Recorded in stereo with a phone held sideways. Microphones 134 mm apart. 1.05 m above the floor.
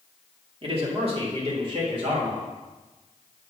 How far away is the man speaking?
About 1.7 m.